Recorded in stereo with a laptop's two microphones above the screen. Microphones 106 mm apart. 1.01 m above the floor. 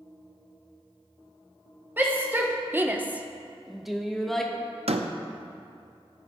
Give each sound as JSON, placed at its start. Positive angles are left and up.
{"t": 2.0, "sound": "a shout", "side_deg": -20, "distance_m": 1.0}
{"t": 4.9, "sound": "a door slam", "side_deg": -75, "distance_m": 0.6}